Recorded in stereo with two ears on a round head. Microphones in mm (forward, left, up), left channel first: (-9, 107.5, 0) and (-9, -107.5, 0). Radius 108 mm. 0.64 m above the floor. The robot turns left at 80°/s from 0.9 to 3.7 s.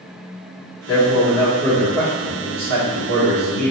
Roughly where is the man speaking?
Left.